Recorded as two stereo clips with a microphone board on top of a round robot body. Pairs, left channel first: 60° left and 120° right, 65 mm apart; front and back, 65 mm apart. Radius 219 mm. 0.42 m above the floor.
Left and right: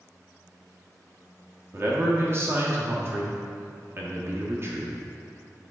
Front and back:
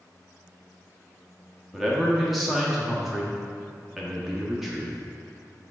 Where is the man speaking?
95° right, 1.6 m.